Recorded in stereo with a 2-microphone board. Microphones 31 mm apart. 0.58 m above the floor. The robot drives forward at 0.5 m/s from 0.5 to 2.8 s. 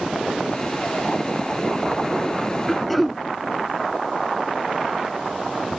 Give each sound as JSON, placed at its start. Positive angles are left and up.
{"t": 2.7, "sound": "throat clearing", "side_deg": 5}